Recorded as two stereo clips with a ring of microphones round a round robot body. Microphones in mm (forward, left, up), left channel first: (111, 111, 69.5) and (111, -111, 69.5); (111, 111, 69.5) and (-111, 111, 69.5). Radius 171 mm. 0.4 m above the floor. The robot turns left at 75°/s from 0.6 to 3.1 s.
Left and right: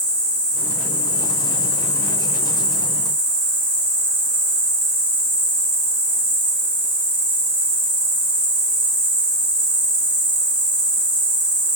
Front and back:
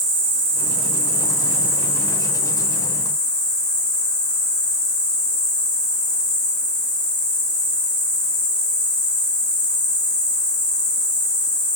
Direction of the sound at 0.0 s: 160° left.